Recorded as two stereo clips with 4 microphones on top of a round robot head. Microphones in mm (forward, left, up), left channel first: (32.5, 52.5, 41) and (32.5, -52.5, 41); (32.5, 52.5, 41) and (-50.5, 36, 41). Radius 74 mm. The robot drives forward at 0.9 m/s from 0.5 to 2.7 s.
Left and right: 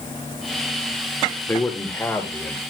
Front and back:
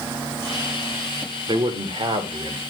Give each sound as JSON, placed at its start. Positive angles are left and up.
{"t": 1.5, "sound": "a man speaking", "azimuth_deg": 165, "distance_m": 1.4}